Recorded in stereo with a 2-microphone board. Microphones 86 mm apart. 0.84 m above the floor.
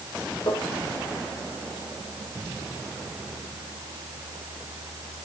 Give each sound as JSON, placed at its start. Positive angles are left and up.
{"t": 0.5, "sound": "tapping", "side_deg": 65, "distance_m": 5.5}